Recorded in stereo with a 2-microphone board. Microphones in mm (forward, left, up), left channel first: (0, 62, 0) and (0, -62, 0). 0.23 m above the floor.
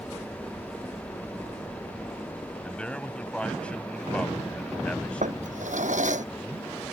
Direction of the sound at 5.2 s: 80° right.